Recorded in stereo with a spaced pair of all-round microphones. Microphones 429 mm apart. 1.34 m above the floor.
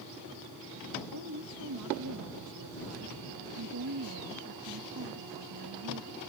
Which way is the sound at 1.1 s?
55° right (ahead or behind).